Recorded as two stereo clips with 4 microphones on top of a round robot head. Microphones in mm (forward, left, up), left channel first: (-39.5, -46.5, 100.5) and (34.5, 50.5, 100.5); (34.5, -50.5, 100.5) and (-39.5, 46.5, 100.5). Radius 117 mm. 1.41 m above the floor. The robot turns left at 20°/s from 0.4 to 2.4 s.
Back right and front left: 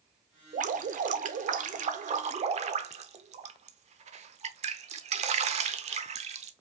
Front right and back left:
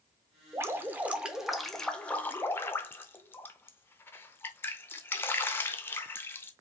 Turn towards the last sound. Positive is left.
turn(degrees=20)